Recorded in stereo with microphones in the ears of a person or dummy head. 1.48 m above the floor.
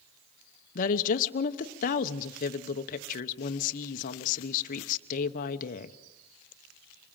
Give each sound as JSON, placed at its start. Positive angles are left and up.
{"t": 0.8, "sound": "a woman speaking", "side_deg": 45, "distance_m": 1.0}